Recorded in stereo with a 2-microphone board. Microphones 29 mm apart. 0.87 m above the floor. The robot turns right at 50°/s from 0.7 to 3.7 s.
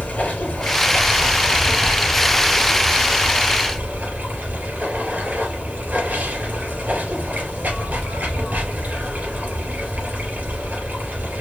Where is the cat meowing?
I don't hear a cat meowing.